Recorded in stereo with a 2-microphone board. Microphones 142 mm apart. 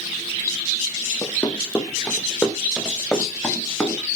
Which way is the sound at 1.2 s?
10° left (ahead or behind).